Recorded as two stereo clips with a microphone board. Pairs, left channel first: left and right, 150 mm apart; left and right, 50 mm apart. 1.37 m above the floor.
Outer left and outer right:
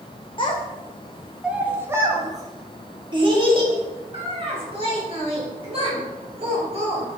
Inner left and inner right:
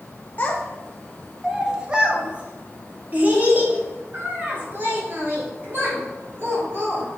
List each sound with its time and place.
0.4 s a child speaking: 35° left (ahead or behind), 0.7 m; by 7.2 s 45° right (ahead or behind), 4 m